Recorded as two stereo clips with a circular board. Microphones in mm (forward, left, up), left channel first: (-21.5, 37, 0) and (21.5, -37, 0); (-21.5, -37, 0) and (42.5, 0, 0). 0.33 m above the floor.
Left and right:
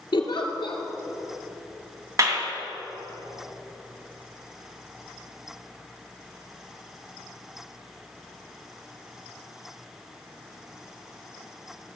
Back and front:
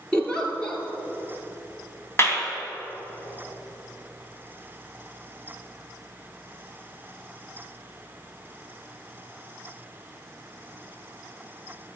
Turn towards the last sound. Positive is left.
turn(degrees=-100)